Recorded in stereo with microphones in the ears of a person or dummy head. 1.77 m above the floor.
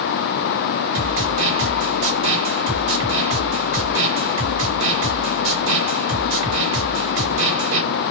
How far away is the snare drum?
About 2.5 m.